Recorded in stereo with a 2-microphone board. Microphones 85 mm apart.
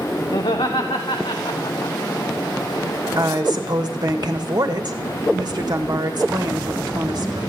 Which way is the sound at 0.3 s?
75° left (ahead or behind).